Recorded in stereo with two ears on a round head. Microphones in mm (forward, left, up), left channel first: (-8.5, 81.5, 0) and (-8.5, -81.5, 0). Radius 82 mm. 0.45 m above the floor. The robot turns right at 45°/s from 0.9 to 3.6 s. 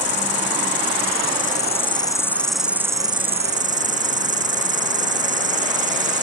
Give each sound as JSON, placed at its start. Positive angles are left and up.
{"t": 0.0, "sound": "an insect", "azimuth_deg": 105}